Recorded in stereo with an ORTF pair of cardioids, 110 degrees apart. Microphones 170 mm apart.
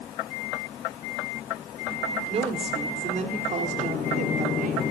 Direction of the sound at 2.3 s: 35° right.